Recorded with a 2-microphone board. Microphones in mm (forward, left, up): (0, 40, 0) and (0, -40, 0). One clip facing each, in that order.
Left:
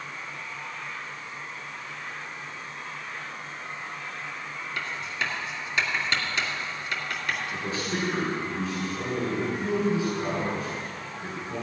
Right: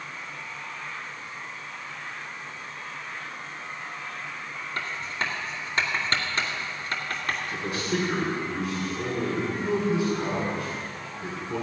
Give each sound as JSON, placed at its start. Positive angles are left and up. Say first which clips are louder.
{"t": 4.8, "sound": "writing", "louder": "right 1 dB", "side_deg": -40, "distance_m": 2.5}
{"t": 7.5, "sound": "a man speaking", "louder": "right 2 dB", "side_deg": -85, "distance_m": 5.5}